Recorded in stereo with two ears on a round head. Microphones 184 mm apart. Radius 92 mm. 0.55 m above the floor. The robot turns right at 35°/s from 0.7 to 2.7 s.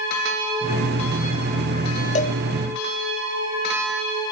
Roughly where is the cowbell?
Left.